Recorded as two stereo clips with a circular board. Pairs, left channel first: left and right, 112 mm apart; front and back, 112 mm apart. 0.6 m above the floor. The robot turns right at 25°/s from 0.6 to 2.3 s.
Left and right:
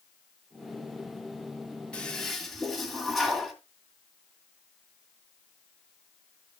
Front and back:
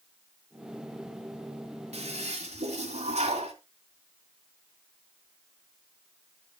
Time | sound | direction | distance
1.9 | a toilet flushing | 170° left | 2 m